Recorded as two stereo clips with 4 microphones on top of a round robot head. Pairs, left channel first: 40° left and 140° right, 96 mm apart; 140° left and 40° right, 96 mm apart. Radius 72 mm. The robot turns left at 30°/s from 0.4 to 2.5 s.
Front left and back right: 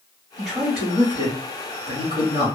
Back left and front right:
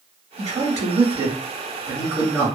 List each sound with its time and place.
0.4 s a man speaking: 65° right, 1.5 m; by 2.5 s 125° right, 1.5 m